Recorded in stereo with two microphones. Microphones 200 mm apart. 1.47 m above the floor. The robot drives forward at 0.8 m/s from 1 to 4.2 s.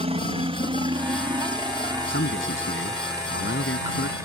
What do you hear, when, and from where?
0.0 s a helicopter: 30° right (ahead or behind); by 4.2 s 15° right (ahead or behind)
2.1 s a man speaking: 90° left; by 4.2 s 80° left